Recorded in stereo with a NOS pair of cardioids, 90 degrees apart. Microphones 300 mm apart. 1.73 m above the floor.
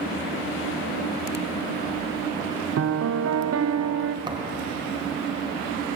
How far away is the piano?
About 1.1 m.